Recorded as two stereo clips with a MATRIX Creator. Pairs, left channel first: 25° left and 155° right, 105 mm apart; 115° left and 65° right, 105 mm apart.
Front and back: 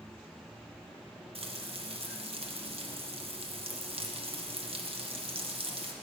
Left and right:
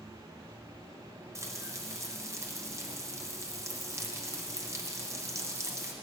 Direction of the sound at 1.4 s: 130° right.